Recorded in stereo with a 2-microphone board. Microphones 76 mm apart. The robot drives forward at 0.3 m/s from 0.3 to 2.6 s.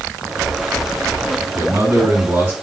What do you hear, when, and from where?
1.6 s a man speaking: 35° right (ahead or behind), 7 m; by 2.5 s 30° right (ahead or behind), 7 m